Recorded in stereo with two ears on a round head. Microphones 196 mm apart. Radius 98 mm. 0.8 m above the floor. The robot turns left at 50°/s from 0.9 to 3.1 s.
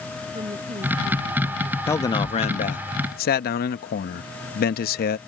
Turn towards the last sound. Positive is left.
turn(degrees=105)